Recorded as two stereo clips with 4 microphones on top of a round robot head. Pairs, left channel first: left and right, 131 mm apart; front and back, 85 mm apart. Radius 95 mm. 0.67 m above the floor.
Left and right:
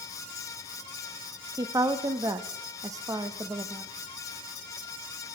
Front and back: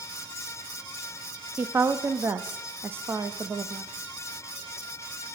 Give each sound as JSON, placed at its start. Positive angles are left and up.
{"t": 1.6, "sound": "a woman speaking", "azimuth_deg": -135, "distance_m": 0.6}